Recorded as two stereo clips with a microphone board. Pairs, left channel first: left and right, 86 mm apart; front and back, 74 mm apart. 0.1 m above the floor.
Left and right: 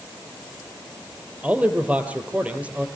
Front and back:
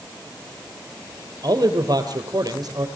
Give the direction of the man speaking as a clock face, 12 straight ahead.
5 o'clock.